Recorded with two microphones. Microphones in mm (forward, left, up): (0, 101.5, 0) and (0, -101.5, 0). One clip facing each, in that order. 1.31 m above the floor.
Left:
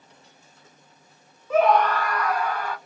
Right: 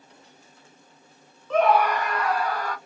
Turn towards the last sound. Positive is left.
turn(degrees=-40)  # may be behind; listen again after turning